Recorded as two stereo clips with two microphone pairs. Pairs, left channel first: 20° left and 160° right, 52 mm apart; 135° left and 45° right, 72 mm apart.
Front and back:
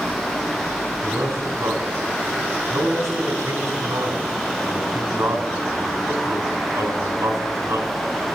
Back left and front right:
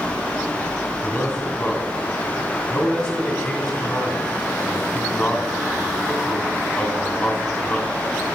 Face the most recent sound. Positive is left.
turn(degrees=-150)